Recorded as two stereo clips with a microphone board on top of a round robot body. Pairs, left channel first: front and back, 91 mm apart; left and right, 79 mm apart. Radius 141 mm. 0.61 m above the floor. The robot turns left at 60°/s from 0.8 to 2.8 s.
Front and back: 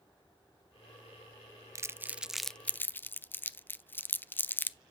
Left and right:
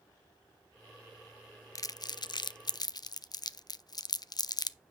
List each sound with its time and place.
1.8 s crumpling: 130° left, 0.5 m; by 4.8 s 65° left, 0.5 m